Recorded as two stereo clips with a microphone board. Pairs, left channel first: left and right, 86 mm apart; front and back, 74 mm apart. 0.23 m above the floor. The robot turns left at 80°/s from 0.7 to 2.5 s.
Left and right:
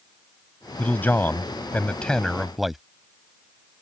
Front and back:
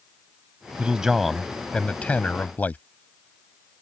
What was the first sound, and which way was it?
A man speaking, 130° left.